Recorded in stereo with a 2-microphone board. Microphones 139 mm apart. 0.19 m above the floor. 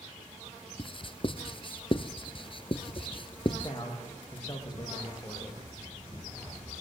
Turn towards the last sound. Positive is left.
turn(degrees=30)  # may be behind; listen again after turning